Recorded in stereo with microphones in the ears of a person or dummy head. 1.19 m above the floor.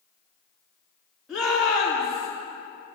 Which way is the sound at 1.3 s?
10° right (ahead or behind).